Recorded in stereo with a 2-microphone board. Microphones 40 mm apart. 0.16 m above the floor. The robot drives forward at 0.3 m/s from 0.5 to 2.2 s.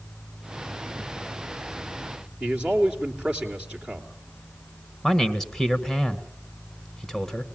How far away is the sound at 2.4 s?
About 3 m.